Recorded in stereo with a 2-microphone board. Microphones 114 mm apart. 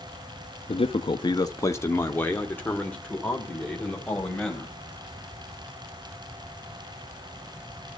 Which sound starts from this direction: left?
A man speaking, at 0.7 s.